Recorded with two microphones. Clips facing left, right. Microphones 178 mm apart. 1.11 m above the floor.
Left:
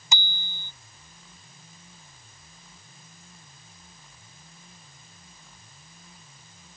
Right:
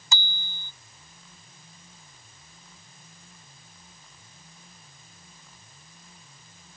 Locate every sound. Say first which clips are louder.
0.1 s a bicycle bell: left 1 dB; 20° left (ahead or behind)